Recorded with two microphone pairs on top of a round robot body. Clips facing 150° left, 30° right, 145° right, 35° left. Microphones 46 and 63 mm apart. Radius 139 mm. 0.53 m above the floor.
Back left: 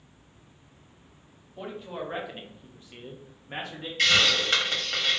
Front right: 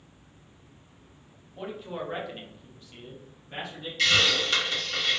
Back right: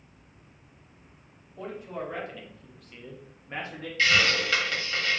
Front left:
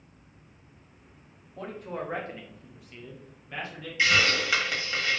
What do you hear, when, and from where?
1.6 s a man speaking: 50° left, 1.2 m; by 3.9 s 175° right, 1.1 m
4.0 s a hiss: 115° left, 1.5 m